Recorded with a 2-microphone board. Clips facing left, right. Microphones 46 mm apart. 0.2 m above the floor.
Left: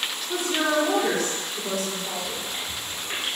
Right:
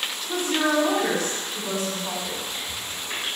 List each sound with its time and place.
0.3 s a woman speaking: 35° right (ahead or behind), 1.5 m
2.2 s chewing: 40° left (ahead or behind), 1.5 m